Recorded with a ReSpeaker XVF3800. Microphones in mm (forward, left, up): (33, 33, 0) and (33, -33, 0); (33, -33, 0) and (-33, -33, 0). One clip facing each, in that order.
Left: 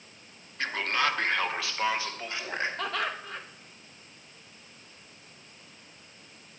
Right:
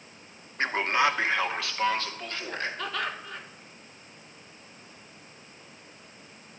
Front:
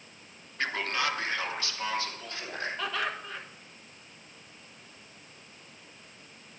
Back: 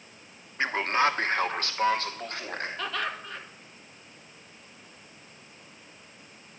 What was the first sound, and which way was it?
A man speaking, 125° right.